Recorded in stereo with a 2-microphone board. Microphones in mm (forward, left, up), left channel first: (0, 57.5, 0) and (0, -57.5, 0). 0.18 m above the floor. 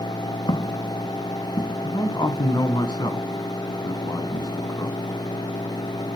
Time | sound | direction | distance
0.5 | footsteps | 40° left (ahead or behind) | 1.6 m
1.8 | a man speaking | 35° left (ahead or behind) | 1.6 m